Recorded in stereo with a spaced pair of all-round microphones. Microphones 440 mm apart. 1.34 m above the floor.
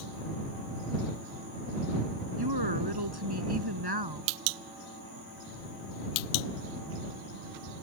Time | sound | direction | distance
2.4 | a woman speaking | 60° right (ahead or behind) | ?